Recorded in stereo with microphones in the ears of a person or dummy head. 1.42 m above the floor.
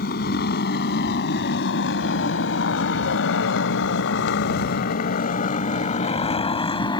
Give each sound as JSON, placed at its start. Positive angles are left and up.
{"t": 0.0, "sound": "a motorcycle", "side_deg": 60}